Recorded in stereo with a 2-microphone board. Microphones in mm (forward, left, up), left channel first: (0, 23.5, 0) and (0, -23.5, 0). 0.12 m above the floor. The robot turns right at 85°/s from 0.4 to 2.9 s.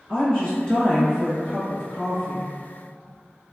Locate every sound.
0.1 s a woman speaking: 20° left (ahead or behind), 1.8 m; by 2.5 s 20° right (ahead or behind), 1.8 m